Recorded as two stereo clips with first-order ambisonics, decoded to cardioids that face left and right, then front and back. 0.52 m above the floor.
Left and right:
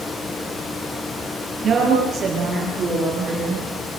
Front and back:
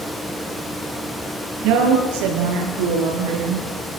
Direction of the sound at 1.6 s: 155° right.